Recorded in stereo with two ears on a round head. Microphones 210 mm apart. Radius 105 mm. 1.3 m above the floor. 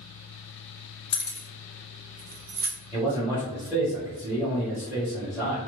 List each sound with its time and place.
1.1 s keys jangling: 20° left (ahead or behind), 0.6 m; by 2.7 s 60° right (ahead or behind), 0.9 m
2.9 s a man speaking: 10° left (ahead or behind), 1.2 m